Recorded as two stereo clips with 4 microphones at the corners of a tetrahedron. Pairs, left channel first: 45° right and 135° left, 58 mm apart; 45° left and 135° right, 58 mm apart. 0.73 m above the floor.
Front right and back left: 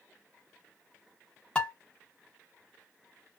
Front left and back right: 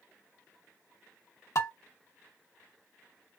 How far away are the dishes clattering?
About 1.1 m.